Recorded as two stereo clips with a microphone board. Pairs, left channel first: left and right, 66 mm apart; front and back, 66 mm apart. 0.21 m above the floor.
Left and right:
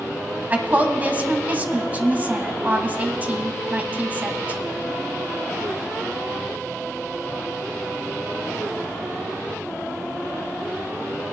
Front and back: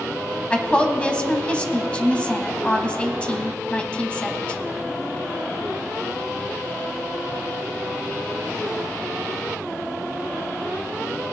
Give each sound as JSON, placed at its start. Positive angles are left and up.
{"t": 0.5, "sound": "a woman speaking", "azimuth_deg": -55, "distance_m": 1.1}